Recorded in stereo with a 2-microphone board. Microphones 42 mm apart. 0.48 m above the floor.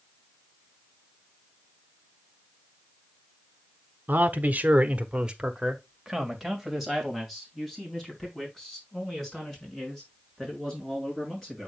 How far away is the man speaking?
About 1.4 m.